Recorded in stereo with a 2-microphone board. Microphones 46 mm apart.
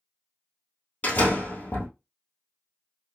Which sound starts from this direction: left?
A door slam, at 1.0 s.